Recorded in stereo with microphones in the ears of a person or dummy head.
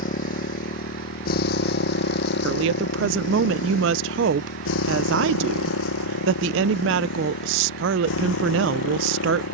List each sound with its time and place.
0.0 s a motorcycle: 45° left (ahead or behind); by 9.5 s 80° left
2.4 s a woman speaking: 65° right (ahead or behind)